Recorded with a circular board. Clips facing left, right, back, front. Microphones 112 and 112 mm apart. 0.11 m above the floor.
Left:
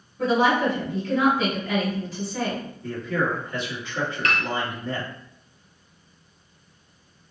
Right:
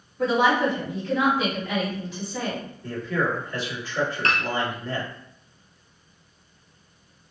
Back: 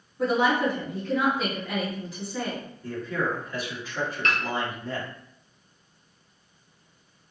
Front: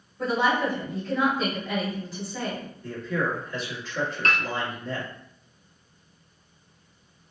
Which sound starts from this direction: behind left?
A man speaking, at 2.8 s.